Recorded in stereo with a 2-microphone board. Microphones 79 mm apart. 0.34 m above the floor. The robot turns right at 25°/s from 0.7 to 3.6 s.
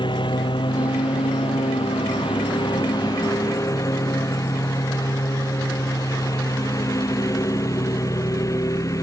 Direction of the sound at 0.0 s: 70° left.